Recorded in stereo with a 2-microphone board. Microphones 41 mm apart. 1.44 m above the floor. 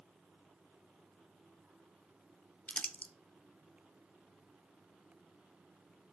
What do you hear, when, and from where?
2.7 s crumpling: 30° left (ahead or behind), 0.5 m